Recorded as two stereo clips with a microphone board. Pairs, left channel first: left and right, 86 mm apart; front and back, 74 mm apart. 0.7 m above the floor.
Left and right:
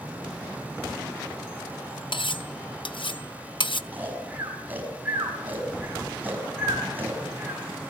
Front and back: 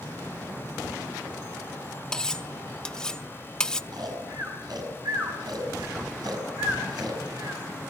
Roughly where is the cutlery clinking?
Left.